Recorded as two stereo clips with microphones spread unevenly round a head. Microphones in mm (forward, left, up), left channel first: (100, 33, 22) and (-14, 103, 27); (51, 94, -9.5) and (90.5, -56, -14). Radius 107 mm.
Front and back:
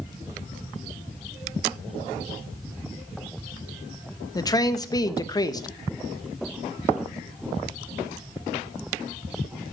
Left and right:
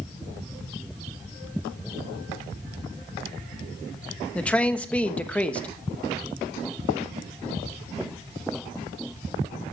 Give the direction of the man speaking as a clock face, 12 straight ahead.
11 o'clock.